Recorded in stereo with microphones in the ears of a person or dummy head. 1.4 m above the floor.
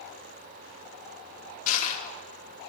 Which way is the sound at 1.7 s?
50° left (ahead or behind).